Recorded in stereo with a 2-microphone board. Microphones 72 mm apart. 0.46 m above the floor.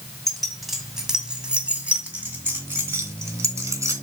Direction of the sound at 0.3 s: 5° left (ahead or behind).